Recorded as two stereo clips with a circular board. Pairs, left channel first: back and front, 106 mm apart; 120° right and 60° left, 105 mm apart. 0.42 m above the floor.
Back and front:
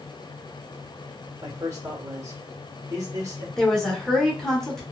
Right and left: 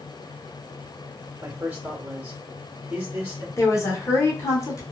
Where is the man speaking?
10° left, 1.0 m.